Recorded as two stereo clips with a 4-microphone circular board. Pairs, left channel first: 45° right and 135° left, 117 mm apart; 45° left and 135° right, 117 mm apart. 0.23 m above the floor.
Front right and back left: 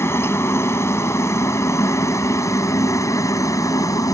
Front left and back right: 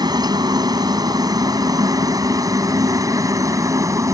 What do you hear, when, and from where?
0.0 s a helicopter: 105° right; by 4.2 s 90° right